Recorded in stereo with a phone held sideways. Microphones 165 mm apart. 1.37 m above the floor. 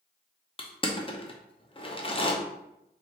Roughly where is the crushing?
Left.